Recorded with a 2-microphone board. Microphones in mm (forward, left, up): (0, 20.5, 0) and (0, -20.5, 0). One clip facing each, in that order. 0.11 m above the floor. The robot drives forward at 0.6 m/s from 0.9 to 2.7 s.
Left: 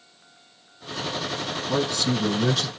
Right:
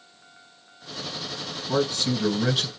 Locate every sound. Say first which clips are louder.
1.7 s a man speaking: right 1 dB; 10° right (ahead or behind), 2.0 m